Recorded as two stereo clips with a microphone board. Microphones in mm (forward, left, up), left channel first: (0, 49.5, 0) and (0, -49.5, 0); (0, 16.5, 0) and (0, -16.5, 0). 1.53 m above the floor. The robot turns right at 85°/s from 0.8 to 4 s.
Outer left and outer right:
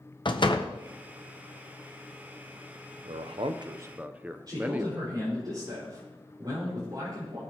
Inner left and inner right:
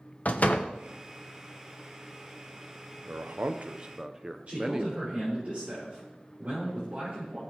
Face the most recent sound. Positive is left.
turn(degrees=-45)  # may be behind; listen again after turning